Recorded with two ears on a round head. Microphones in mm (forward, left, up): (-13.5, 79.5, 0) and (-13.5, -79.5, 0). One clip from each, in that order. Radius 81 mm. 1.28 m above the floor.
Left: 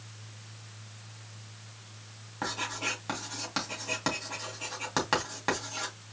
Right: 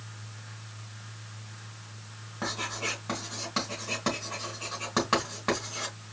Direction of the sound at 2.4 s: 30° left (ahead or behind).